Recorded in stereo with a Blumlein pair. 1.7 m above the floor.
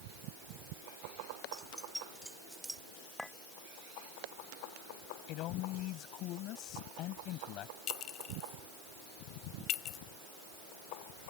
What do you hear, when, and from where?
1.5 s keys jangling: straight ahead; by 2.8 s 5° right
3.2 s a clink: 10° left
5.3 s a man speaking: 40° left
7.9 s a clink: 35° left